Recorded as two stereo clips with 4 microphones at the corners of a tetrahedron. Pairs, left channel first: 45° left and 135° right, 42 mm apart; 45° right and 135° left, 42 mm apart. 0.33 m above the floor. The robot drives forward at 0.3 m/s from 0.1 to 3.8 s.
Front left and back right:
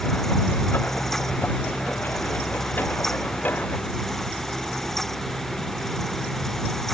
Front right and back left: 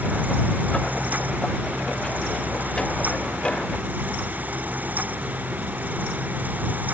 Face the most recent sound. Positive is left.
No sound to turn to.